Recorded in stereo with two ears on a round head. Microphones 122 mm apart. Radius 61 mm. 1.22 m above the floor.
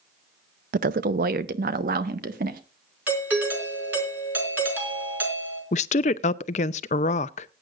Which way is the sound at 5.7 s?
55° left (ahead or behind).